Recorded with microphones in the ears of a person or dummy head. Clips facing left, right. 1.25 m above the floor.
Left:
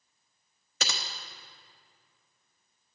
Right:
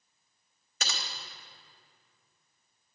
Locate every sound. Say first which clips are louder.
0.8 s typing on a keyboard: left 3 dB; 55° left (ahead or behind), 1.1 m